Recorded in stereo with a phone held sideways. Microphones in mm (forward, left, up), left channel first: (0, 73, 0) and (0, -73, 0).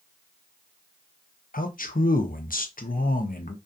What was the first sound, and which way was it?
A man speaking, 70° left (ahead or behind).